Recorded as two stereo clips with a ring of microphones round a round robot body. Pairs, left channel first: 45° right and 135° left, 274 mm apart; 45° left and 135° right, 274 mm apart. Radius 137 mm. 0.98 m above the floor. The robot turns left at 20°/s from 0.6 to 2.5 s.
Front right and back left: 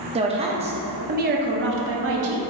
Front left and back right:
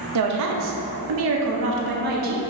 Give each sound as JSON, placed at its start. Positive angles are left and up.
{"t": 0.1, "sound": "a woman speaking", "azimuth_deg": -155, "distance_m": 0.6}